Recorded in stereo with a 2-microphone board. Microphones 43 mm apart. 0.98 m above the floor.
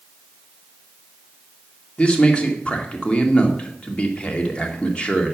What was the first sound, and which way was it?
A man speaking, 25° left (ahead or behind).